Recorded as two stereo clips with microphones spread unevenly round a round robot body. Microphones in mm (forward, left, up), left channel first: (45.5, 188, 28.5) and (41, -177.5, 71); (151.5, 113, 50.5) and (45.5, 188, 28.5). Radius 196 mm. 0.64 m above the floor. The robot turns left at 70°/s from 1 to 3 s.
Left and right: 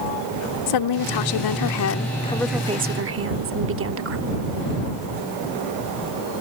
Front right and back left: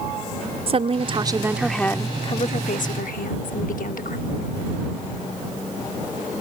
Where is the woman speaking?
105° left; by 4.2 s 35° right.